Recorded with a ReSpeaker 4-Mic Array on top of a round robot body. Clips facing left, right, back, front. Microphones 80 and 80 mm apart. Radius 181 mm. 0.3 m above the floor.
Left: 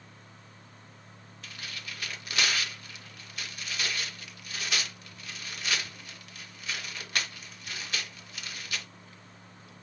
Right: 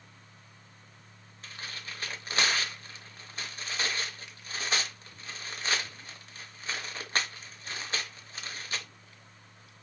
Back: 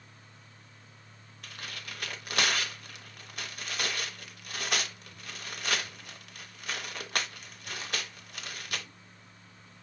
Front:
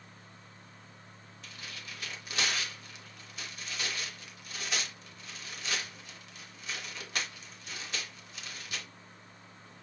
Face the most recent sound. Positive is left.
turn(degrees=-150)